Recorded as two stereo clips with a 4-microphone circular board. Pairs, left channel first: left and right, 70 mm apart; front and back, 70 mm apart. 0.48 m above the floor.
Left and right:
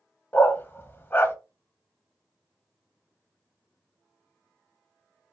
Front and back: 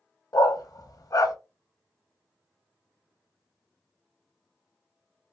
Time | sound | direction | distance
0.3 | a dog barking | 30° left | 0.5 m